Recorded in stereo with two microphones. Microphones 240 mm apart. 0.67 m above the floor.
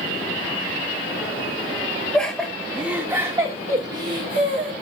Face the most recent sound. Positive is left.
turn(degrees=-50)  # may be behind; listen again after turning